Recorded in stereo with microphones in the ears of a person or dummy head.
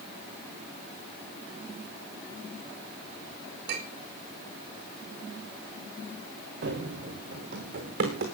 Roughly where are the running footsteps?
Right.